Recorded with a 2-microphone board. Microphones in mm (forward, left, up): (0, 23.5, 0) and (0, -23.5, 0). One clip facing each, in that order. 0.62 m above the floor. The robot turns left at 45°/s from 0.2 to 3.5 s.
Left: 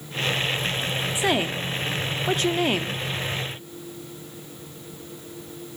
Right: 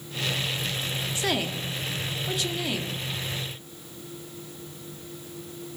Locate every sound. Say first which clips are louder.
1.1 s a woman speaking: left 4 dB; 150° left, 1.1 m; by 3.0 s 65° left, 1.1 m